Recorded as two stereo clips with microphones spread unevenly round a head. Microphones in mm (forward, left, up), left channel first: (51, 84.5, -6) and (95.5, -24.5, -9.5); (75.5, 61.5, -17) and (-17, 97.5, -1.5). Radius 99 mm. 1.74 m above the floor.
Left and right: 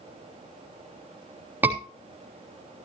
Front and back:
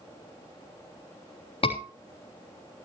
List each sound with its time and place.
1.6 s a scream: 5° left, 3.5 m